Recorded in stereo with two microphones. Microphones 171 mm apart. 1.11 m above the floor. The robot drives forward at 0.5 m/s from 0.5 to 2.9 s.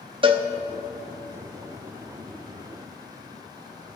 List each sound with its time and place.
0.2 s a cowbell: 30° right (ahead or behind), 0.8 m